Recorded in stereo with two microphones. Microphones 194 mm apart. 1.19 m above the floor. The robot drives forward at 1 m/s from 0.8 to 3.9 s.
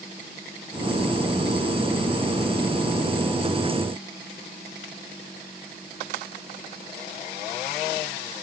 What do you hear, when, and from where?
Only background noise.